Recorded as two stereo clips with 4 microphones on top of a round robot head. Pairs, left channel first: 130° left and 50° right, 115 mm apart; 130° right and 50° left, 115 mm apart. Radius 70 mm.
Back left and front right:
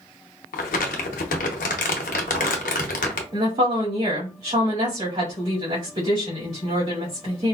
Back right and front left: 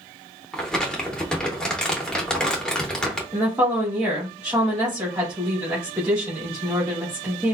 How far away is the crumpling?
About 0.7 m.